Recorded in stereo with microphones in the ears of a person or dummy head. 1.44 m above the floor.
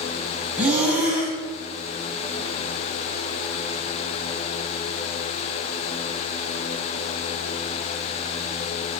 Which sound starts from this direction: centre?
Breathing, at 0.6 s.